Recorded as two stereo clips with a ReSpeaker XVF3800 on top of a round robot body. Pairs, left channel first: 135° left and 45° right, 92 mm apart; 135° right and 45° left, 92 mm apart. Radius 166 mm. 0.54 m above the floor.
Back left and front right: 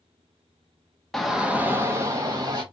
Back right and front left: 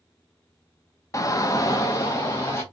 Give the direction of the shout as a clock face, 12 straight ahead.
5 o'clock.